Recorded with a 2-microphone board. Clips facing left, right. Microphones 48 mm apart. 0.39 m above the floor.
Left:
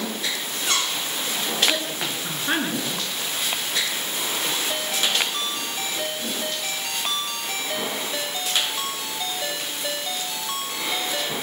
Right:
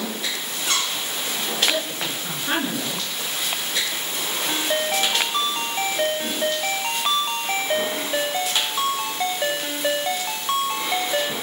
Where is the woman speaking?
10° left (ahead or behind), 7 m.